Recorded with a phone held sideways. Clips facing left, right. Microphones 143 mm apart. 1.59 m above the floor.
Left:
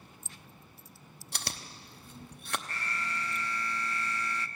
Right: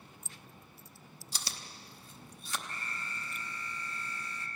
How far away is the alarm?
About 0.6 m.